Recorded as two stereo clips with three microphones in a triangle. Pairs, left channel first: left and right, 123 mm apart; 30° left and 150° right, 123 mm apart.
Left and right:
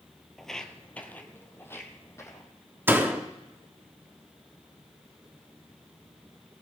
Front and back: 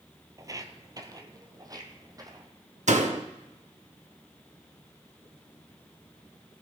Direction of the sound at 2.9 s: 165° right.